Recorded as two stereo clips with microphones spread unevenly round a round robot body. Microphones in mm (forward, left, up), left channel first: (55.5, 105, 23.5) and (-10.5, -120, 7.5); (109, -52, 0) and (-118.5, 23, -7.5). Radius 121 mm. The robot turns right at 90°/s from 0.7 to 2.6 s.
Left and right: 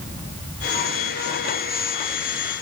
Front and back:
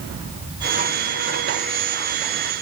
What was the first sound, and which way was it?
Only background noise.